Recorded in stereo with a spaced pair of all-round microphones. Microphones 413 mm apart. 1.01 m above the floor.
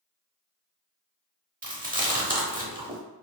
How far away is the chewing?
About 0.8 m.